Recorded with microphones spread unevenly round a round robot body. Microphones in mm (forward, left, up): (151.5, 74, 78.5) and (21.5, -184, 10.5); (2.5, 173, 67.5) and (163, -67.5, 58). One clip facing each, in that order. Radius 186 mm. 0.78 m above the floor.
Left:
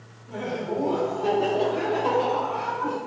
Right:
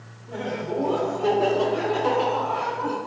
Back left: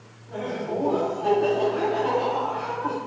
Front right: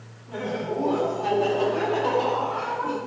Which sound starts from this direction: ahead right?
Laughter, at 0.3 s.